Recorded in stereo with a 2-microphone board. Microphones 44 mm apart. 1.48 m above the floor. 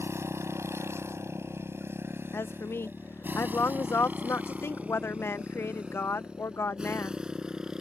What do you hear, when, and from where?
0.0 s a motorcycle: 70° right (ahead or behind); by 7.8 s 15° right (ahead or behind)
2.3 s a woman speaking: 60° left (ahead or behind)